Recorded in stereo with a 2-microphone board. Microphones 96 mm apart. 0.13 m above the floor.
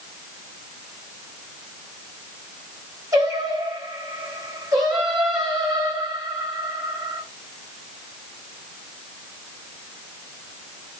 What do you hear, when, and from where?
3.1 s singing: 40° right (ahead or behind), 2.5 m